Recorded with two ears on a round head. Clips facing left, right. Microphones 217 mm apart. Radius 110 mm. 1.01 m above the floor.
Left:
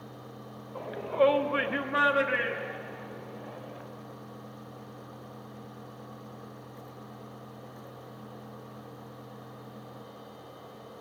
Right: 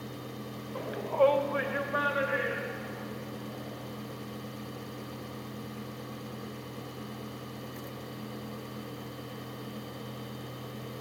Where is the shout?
25° right (ahead or behind), 0.5 m; by 3.8 s 65° left (ahead or behind), 3 m.